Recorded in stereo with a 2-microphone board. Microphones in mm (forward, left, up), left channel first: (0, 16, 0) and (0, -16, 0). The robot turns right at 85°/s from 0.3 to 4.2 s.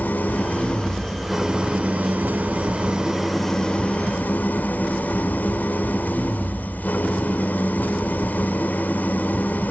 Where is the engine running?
100° left, 2.5 m; by 9.7 s 70° left, 2.5 m.